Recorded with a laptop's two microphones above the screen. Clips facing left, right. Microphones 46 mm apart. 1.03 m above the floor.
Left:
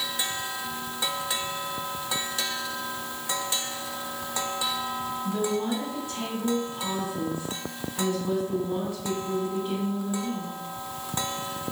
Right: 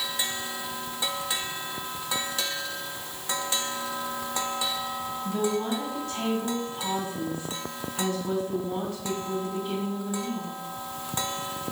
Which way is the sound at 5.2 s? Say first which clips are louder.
Right 1 dB; 15° left (ahead or behind).